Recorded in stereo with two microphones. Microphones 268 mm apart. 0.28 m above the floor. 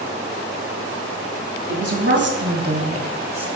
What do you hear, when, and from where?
1.7 s a woman speaking: 45° right (ahead or behind), 1.9 m; by 3.5 s 5° right (ahead or behind), 0.9 m